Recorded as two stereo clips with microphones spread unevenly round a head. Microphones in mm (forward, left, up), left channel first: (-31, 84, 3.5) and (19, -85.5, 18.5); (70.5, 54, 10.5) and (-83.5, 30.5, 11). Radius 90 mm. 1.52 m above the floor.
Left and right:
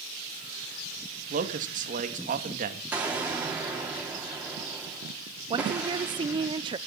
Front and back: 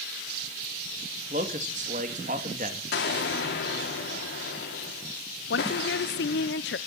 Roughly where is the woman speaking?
Ahead.